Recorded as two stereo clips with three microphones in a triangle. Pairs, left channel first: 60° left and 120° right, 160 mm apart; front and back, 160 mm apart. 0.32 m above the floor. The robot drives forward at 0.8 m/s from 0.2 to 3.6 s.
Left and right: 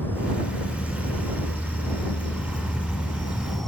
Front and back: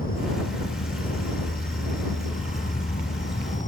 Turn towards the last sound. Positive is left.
turn(degrees=-30)